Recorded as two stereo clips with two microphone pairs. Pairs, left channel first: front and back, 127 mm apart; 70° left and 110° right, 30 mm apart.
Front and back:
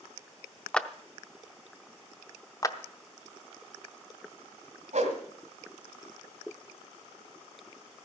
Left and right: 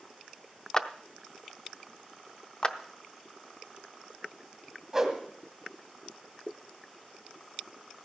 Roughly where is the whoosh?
Behind.